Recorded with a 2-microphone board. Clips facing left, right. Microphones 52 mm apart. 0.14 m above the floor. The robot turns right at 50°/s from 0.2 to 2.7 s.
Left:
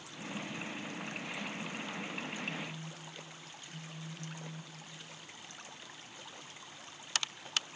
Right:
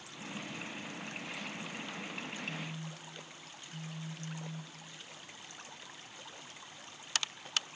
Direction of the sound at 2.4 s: 20° left (ahead or behind).